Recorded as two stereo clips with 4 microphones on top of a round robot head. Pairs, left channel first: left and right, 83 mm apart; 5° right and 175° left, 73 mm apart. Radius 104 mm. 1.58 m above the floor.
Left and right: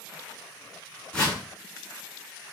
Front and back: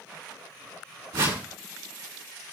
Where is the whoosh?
165° left, 3 m.